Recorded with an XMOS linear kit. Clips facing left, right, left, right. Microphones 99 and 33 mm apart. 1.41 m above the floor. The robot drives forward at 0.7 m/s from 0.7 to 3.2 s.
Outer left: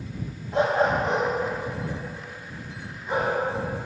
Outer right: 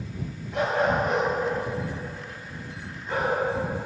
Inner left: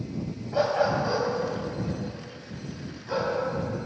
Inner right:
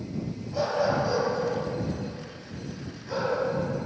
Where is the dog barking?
35° left (ahead or behind), 2.5 m; by 3.4 s 20° left (ahead or behind), 4 m.